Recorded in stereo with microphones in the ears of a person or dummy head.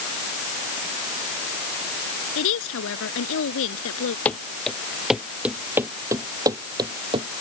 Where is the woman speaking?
75° left (ahead or behind).